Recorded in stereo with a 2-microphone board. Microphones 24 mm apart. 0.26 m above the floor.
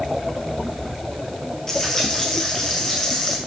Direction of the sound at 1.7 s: 25° left (ahead or behind).